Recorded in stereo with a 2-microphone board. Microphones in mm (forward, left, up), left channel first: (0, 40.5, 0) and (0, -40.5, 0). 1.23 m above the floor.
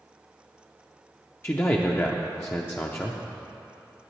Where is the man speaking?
30° left (ahead or behind), 0.5 m.